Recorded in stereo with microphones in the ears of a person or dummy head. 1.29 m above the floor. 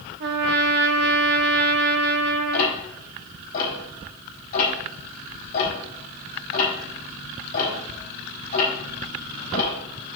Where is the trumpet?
60° right (ahead or behind), 1.1 m.